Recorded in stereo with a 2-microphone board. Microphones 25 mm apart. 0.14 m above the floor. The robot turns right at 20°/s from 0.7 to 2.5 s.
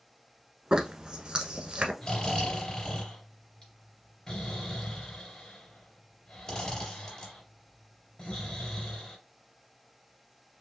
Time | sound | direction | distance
0.7 | a zipper | 35° right (ahead or behind) | 1.0 m
2.0 | snoring | 35° left (ahead or behind) | 2.5 m